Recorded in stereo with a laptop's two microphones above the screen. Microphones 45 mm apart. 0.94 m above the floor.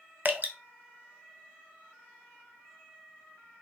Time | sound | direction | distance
0.2 | dripping | 40° right (ahead or behind) | 0.6 m